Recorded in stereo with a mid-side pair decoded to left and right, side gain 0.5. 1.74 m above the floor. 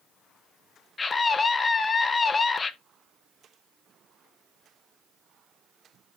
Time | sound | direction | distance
1.0 | a scream | 30° left | 1.7 m